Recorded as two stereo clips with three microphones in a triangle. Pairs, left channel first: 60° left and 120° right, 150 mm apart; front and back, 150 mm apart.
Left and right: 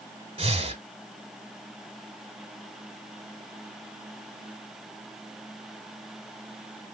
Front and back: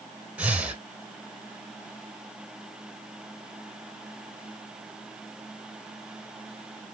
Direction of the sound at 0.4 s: 100° right.